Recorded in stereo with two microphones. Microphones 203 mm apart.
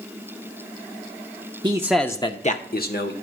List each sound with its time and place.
1.6 s a man speaking: 25° right (ahead or behind), 0.7 m; by 3.1 s 60° left (ahead or behind), 1.2 m